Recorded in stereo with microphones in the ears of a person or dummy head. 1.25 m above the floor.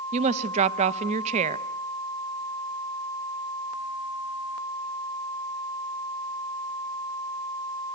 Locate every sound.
0.1 s a woman speaking: 35° right (ahead or behind), 1.0 m